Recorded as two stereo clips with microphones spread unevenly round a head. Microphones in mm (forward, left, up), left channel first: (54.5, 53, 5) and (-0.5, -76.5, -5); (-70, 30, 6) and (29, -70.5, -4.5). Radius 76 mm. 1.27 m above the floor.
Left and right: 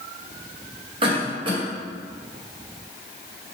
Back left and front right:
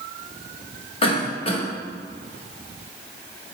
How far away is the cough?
About 0.9 m.